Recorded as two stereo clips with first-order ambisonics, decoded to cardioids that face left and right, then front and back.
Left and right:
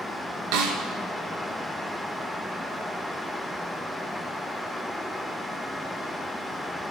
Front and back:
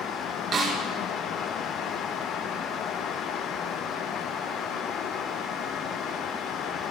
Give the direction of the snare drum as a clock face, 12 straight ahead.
4 o'clock.